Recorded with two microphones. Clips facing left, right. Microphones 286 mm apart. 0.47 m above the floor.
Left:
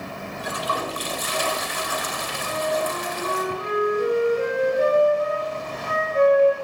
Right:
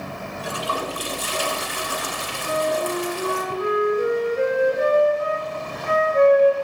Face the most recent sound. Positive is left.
turn(degrees=-65)  # may be behind; listen again after turning